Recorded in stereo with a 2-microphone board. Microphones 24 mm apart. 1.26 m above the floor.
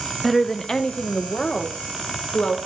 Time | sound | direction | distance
0.2 | a woman speaking | 5° left (ahead or behind) | 0.6 m